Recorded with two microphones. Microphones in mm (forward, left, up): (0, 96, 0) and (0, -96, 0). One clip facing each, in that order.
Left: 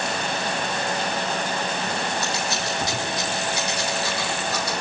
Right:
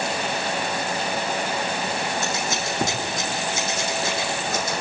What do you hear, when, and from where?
2.2 s scissors: 45° right (ahead or behind), 4 m